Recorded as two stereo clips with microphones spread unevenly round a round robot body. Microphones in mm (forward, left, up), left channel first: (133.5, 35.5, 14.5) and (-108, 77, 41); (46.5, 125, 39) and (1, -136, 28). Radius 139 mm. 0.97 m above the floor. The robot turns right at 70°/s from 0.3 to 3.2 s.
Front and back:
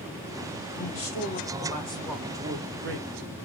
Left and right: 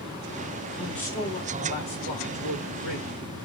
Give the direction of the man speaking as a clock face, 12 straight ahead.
1 o'clock.